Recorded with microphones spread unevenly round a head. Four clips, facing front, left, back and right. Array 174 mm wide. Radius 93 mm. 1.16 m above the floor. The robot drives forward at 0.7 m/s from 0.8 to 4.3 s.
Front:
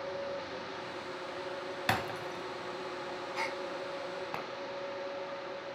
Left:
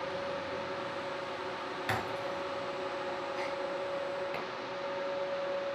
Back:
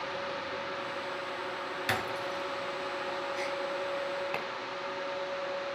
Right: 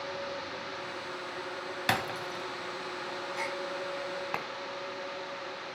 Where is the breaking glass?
75° right, 2.5 m; by 4.3 s 115° right, 2.5 m.